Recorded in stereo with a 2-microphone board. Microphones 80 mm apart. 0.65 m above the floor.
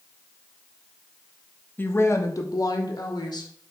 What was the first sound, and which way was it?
A woman speaking, 25° left (ahead or behind).